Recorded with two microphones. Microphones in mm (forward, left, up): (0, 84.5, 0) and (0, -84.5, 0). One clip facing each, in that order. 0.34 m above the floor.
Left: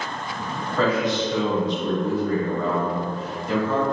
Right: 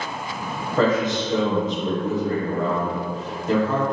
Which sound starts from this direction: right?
A man speaking, at 0.8 s.